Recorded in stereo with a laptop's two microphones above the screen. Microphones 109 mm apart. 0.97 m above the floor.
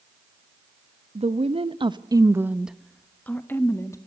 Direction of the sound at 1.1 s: 75° right (ahead or behind).